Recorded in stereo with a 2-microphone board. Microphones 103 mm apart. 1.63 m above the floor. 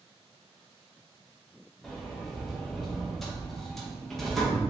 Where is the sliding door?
5° left (ahead or behind), 0.6 m.